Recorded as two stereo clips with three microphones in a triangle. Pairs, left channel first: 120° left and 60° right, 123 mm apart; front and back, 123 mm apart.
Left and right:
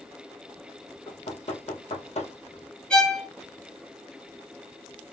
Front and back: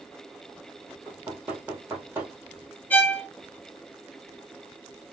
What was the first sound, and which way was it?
Knocking, 105° left.